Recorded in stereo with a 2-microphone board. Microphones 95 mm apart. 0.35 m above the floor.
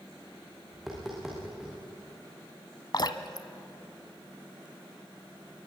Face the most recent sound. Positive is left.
turn(degrees=50)  # may be behind; listen again after turning